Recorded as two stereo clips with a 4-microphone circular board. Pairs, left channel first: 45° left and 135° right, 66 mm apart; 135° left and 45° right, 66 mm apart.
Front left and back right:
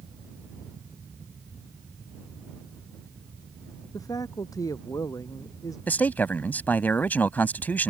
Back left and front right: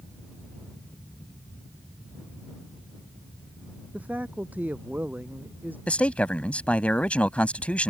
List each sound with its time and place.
3.9 s a man speaking: 20° left; by 5.8 s 15° left
5.9 s a man speaking: 80° left